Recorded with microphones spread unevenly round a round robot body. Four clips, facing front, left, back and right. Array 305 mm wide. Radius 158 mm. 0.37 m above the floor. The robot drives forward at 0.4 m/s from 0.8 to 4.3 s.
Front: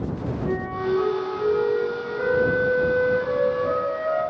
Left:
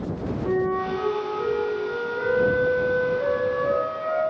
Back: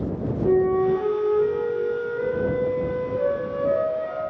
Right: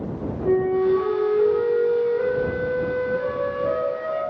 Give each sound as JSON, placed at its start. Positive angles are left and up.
{"t": 0.5, "sound": "a flute", "azimuth_deg": -155, "distance_m": 2.0}